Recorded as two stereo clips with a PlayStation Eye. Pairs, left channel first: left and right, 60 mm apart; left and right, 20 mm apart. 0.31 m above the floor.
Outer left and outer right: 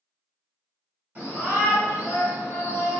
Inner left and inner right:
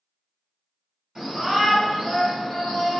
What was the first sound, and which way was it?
A shout, 30° right (ahead or behind).